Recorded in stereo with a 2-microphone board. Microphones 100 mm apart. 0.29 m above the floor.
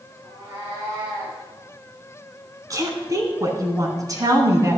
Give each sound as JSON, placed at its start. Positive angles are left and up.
{"t": 0.2, "sound": "a cat meowing", "side_deg": -35, "distance_m": 5.0}
{"t": 2.7, "sound": "a woman speaking", "side_deg": -35, "distance_m": 2.5}